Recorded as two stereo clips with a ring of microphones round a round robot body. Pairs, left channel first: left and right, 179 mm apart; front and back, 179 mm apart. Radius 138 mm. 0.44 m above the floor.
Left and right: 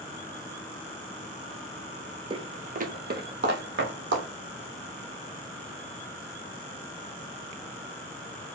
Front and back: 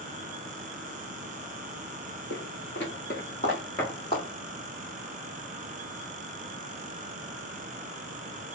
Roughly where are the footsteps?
Ahead right.